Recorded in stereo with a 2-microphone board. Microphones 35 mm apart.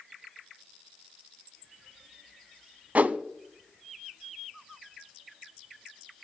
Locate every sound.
3.0 s a whoosh: 50° right (ahead or behind), 0.5 m